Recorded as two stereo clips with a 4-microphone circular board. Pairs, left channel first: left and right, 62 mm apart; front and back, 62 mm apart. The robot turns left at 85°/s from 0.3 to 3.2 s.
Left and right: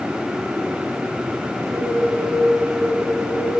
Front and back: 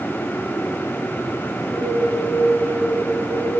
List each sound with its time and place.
1.6 s a bird: 30° right, 3 m; by 3.5 s 170° right, 3 m